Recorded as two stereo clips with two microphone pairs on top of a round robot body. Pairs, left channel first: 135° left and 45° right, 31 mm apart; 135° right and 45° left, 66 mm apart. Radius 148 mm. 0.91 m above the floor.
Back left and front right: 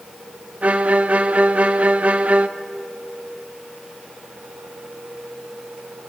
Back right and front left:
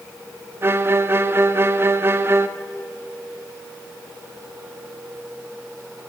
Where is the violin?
10° right, 1.0 m.